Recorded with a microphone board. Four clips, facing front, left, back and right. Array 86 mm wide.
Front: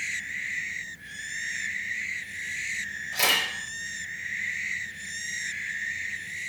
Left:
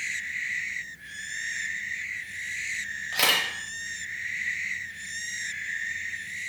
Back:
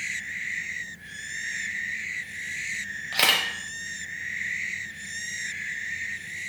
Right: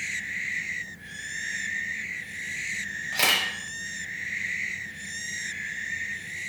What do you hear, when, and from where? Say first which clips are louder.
3.1 s a camera shutter: even, back 2 dB; 175° left, 0.5 m